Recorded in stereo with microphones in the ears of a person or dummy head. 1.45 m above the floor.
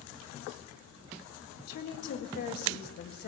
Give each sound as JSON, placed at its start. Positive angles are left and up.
{"t": 1.7, "sound": "a woman speaking", "side_deg": 60, "distance_m": 1.7}